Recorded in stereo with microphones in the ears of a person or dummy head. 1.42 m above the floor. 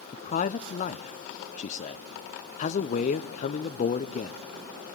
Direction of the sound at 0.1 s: 30° left (ahead or behind).